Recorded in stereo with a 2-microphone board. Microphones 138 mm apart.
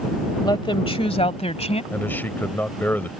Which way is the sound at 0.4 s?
30° left (ahead or behind).